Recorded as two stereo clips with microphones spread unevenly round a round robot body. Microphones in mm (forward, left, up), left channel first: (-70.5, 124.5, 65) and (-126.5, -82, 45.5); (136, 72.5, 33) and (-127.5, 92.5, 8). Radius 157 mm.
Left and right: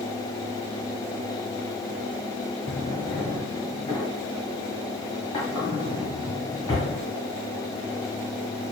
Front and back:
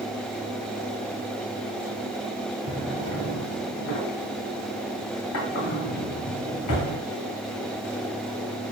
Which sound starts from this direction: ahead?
A drawer, at 2.7 s.